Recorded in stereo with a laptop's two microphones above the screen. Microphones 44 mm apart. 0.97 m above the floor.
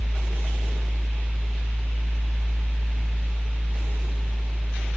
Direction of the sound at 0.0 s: 20° right (ahead or behind).